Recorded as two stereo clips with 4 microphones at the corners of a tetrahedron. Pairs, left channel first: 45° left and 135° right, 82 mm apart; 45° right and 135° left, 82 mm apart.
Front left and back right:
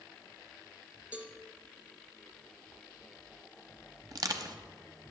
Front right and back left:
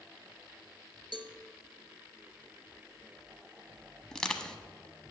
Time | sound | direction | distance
1.1 | a cowbell | 150° left | 0.8 m
4.1 | crushing | 125° right | 0.8 m